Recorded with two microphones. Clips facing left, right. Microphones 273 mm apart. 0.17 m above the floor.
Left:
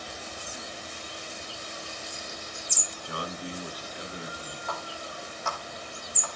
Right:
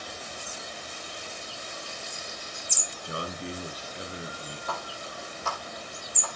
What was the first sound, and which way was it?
A man speaking, 25° right (ahead or behind).